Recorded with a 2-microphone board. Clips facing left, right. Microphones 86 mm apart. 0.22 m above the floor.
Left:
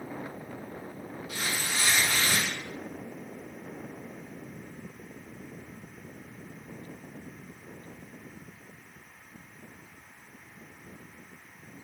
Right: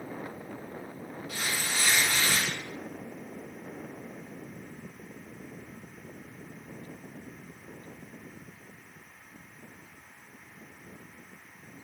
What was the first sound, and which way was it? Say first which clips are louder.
Tearing paper: even; 20° left (ahead or behind).